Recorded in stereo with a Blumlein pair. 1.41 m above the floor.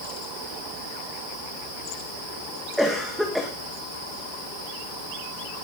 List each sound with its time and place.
2.8 s a cough: straight ahead, 2 m